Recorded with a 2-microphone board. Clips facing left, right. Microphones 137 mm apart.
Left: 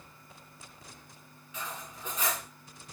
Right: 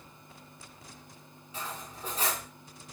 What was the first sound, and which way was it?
Cutlery clinking, 35° right (ahead or behind).